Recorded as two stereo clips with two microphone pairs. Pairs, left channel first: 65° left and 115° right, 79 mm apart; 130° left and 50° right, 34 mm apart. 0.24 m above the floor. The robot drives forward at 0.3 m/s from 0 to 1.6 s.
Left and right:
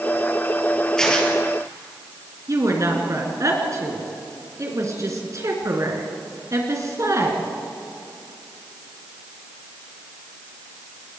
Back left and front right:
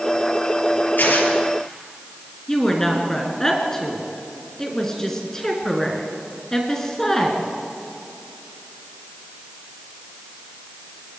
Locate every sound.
1.0 s tearing paper: 150° left, 4 m
2.5 s a woman speaking: 155° right, 3.5 m